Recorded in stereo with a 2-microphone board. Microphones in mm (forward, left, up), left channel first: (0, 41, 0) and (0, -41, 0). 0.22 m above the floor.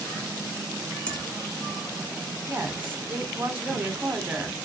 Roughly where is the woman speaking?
Right.